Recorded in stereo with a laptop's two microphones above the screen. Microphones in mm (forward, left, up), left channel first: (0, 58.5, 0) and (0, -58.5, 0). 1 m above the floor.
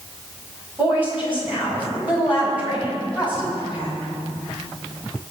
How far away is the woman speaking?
About 6 m.